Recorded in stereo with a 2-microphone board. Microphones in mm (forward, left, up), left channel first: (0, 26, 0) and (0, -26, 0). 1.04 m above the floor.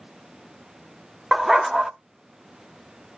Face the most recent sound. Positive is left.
turn(degrees=-5)  # may be behind; listen again after turning